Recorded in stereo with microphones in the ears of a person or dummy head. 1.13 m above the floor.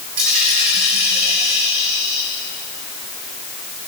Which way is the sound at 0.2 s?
40° right (ahead or behind).